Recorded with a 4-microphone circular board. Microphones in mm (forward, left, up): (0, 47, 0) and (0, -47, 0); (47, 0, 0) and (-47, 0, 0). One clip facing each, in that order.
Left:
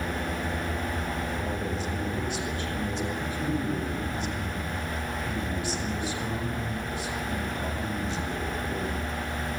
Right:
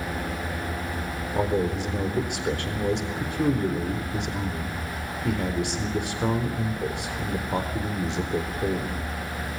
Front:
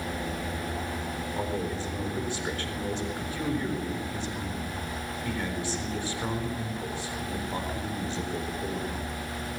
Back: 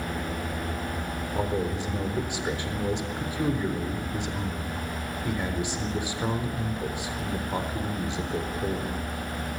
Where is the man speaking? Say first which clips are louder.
Right 6 dB, back 4 dB; 105° right, 4 m.